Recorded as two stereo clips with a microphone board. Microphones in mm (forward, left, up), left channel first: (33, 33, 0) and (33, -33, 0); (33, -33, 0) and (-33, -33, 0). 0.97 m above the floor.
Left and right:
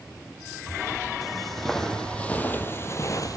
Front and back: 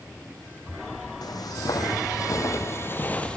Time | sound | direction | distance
1.2 | footsteps | straight ahead | 3 m